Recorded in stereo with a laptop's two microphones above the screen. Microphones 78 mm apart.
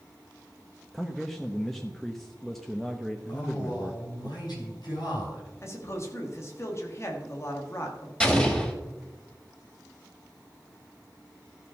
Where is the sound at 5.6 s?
40° left (ahead or behind), 1.5 m.